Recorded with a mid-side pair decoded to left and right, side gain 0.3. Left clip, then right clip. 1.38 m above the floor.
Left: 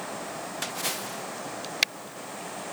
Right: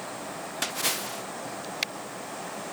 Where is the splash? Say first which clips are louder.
Right 4 dB; 45° right.